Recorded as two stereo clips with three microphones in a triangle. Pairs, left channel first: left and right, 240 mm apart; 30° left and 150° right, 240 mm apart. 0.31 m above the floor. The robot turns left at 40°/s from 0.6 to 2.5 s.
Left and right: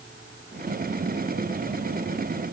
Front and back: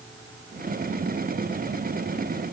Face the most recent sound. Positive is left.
No sound to turn to.